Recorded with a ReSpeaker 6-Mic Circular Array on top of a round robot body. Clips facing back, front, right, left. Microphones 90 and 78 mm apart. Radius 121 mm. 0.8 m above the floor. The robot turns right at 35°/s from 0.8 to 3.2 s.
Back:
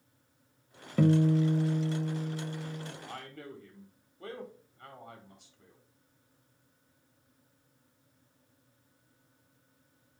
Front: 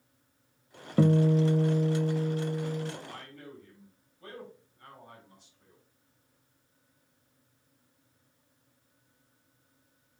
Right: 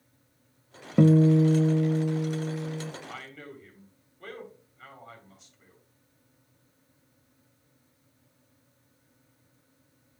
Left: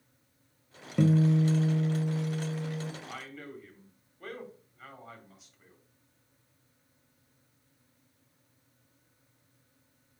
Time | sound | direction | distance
1.0 | a guitar | 60° right | 0.7 m
3.0 | a man speaking | 170° left | 3.5 m